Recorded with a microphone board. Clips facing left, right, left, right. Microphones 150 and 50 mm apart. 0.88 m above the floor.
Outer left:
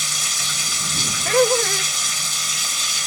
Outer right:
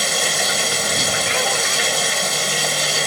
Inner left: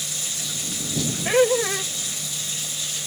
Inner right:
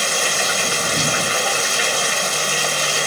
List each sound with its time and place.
0.0 s running water: 70° right (ahead or behind)
1.2 s laughter: 50° left (ahead or behind)